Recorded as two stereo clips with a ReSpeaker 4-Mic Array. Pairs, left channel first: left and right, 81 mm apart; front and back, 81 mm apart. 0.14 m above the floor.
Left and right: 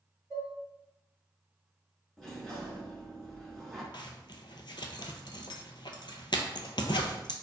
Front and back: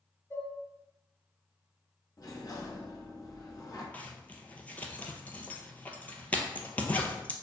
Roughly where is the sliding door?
Ahead.